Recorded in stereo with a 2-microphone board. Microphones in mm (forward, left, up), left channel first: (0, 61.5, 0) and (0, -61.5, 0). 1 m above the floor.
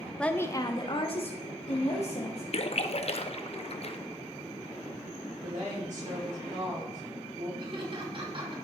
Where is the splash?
55° left (ahead or behind), 0.5 m.